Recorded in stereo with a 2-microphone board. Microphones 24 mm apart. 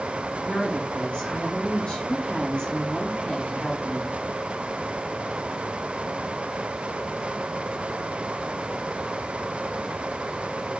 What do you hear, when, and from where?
0.4 s a woman speaking: 45° left (ahead or behind), 5.5 m